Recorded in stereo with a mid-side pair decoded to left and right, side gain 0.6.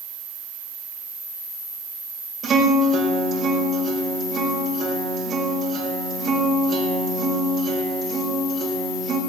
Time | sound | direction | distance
2.4 | a guitar | 45° right | 5 m